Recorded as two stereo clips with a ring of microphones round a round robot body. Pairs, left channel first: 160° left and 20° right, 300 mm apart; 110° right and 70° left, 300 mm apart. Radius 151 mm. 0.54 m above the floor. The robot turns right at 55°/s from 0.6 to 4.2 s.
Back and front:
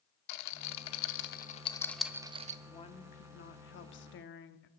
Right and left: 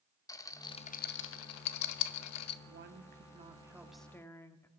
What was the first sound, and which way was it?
A rattle, 170° left.